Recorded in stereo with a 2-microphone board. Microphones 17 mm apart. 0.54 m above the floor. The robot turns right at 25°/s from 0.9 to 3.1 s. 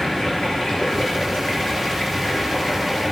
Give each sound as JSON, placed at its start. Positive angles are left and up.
{"t": 0.0, "sound": "running water", "azimuth_deg": 60, "distance_m": 4.5}